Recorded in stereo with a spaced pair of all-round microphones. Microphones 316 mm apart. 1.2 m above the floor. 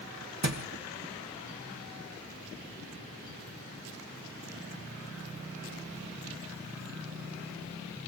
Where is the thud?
55° right (ahead or behind), 1.8 m.